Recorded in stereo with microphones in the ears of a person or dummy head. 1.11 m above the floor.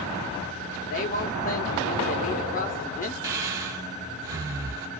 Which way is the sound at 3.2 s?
15° right (ahead or behind).